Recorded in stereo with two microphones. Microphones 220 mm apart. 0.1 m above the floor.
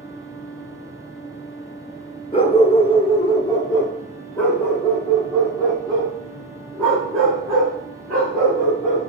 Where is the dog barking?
30° left (ahead or behind), 0.6 m; by 9.0 s centre (ahead or behind), 4 m.